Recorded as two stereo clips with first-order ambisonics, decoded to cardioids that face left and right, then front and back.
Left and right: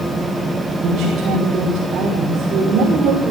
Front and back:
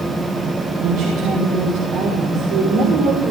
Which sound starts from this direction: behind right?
A woman speaking, at 0.8 s.